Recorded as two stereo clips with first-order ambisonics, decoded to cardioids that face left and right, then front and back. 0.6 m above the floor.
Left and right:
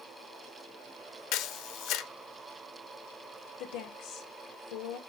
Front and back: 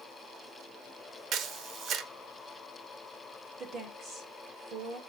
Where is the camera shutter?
125° left, 0.7 m.